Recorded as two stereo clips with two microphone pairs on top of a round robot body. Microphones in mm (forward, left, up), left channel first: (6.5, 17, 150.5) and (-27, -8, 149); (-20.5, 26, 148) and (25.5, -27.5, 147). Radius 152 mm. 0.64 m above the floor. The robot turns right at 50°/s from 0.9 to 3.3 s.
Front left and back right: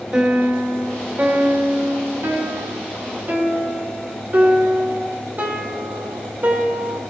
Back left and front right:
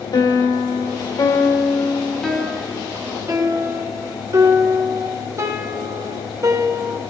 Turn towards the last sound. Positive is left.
turn(degrees=-95)